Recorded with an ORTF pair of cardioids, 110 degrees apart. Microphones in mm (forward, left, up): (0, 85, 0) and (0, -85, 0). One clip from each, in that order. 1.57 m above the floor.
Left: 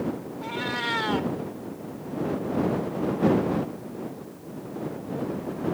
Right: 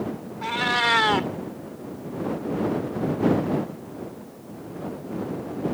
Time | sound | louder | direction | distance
0.4 | a cat meowing | right 7 dB | 50° right | ?